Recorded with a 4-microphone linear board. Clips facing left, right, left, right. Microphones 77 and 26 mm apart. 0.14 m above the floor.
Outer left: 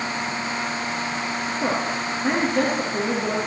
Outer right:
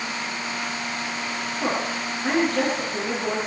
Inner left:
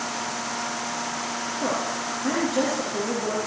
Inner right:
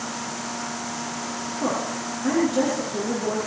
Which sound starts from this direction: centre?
A woman speaking, at 1.6 s.